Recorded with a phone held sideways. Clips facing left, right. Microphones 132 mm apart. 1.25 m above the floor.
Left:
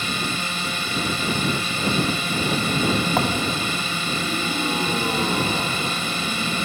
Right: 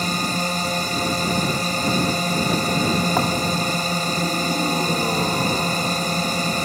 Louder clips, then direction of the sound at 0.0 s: Right 4 dB; 40° right (ahead or behind).